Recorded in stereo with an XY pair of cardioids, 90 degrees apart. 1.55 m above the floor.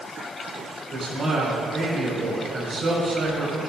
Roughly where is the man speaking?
Ahead right.